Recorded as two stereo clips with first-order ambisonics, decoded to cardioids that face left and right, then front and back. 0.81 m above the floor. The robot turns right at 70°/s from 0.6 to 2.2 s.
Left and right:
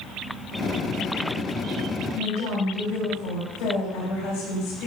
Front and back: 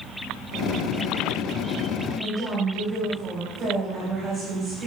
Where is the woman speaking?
110° left, 4 m.